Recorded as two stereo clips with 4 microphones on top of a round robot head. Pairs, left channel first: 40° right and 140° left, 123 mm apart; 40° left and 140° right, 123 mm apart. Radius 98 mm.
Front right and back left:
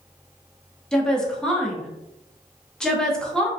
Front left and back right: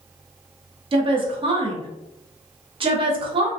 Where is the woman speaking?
120° right, 0.8 m.